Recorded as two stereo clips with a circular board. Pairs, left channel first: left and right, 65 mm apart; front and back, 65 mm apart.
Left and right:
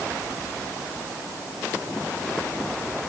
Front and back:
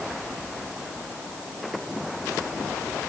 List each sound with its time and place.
Only background noise.